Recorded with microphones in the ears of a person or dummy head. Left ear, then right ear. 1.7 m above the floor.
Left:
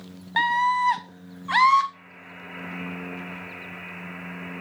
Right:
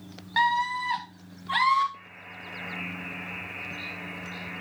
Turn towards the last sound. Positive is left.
turn(degrees=75)  # may be behind; listen again after turning